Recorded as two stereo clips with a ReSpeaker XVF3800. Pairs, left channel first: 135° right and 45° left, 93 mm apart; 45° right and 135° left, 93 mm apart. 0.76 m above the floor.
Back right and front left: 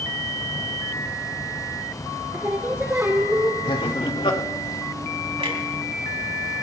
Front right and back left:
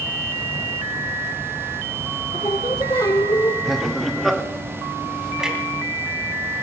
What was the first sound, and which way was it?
Singing, 15° right.